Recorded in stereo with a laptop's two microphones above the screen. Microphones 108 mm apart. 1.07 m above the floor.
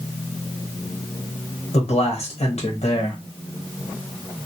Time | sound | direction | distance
1.7 | a man speaking | 75° left (ahead or behind) | 1.1 m